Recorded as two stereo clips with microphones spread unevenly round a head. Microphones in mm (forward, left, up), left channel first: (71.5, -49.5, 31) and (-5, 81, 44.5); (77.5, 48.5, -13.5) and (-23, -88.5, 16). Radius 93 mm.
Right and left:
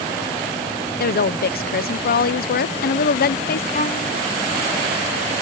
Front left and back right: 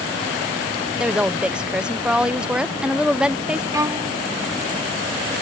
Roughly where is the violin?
Right.